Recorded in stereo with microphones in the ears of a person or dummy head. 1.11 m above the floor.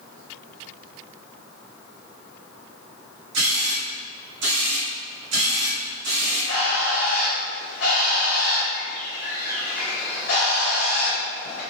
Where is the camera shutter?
65° right (ahead or behind), 1.8 m.